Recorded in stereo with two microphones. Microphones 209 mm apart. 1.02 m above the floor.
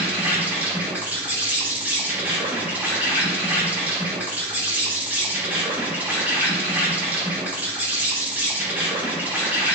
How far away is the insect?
About 0.7 m.